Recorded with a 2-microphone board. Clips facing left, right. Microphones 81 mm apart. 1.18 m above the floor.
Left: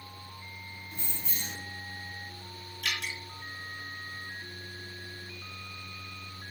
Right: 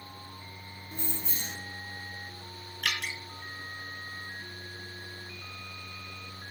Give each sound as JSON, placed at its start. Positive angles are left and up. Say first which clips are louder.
{"t": 0.9, "sound": "keys jangling", "louder": "right 5 dB", "side_deg": -35, "distance_m": 1.1}
{"t": 2.8, "sound": "dripping", "louder": "right 2 dB", "side_deg": -60, "distance_m": 1.5}